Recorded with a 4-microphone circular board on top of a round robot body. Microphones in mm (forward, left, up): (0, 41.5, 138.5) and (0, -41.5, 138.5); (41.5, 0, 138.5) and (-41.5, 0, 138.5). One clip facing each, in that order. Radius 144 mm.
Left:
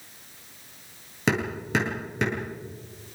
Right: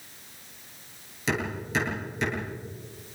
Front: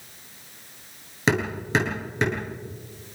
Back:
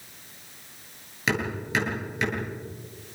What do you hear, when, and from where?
1.3 s hammering: 60° left, 9 m